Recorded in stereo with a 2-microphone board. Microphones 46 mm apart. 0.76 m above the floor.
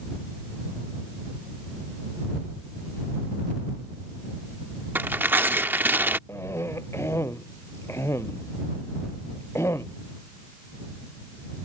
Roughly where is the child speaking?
I don't hear a child speaking.